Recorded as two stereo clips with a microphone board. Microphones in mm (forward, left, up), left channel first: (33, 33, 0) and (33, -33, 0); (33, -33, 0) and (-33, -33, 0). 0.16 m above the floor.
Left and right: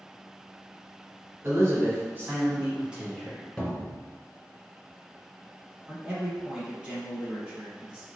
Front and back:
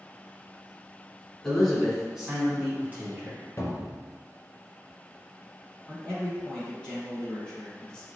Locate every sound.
1.4 s a man speaking: 80° right, 1.5 m; by 3.4 s straight behind, 1.3 m
3.6 s a cupboard door: 15° left, 1.0 m
5.9 s a man speaking: 50° right, 1.5 m